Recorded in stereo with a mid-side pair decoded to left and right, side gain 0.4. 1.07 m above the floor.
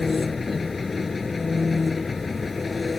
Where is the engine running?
30° left.